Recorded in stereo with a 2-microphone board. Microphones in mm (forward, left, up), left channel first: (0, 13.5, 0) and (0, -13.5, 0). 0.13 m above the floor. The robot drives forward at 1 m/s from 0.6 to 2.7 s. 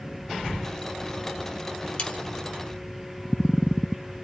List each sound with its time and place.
2.0 s sawing: 45° left (ahead or behind), 2.5 m